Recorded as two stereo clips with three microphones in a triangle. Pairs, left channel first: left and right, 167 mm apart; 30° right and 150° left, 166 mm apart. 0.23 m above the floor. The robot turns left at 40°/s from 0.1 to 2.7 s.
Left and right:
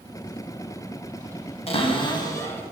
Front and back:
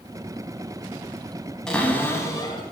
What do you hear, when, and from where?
1.7 s a cupboard door: 55° left, 0.5 m; by 2.6 s 15° left, 0.5 m